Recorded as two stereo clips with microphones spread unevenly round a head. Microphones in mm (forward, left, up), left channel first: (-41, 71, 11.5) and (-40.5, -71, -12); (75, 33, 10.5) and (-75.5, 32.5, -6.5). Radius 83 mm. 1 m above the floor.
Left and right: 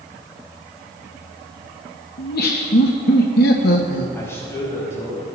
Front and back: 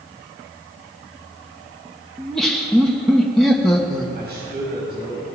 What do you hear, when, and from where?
2.2 s laughter: 90° left, 1.5 m
4.2 s a man speaking: 160° left, 6.5 m